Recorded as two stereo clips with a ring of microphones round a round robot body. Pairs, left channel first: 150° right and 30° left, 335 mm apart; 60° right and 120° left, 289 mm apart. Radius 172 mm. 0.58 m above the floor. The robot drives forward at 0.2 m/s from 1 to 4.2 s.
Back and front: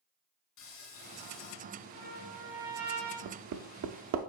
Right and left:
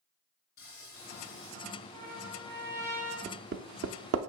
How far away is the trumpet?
About 4 m.